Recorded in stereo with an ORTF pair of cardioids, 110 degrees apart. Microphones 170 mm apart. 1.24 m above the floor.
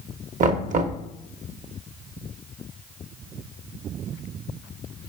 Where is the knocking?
50° right, 0.7 m.